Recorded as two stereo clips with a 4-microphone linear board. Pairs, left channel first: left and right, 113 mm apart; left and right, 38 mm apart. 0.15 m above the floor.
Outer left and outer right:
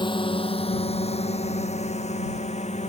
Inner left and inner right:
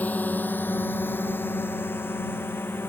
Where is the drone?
45° left (ahead or behind); by 2.9 s 80° left.